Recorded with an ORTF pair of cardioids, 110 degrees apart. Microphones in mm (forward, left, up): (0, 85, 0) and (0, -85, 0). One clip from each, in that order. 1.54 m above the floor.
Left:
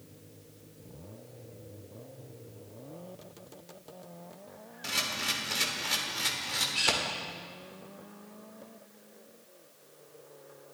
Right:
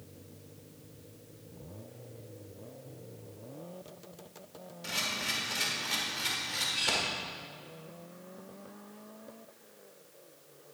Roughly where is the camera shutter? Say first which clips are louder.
Left 2 dB; ahead left.